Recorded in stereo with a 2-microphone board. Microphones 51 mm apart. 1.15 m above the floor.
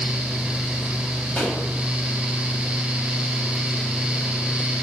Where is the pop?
10° left (ahead or behind), 3 m.